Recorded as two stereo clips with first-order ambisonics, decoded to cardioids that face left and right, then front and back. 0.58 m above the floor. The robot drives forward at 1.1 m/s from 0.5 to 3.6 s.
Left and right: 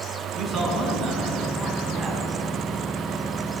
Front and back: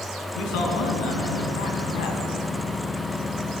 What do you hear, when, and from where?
0.3 s a man speaking: 5° right, 6.5 m; by 2.2 s 10° right, 5 m